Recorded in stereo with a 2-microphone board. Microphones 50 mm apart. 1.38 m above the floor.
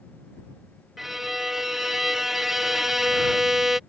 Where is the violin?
10° right (ahead or behind).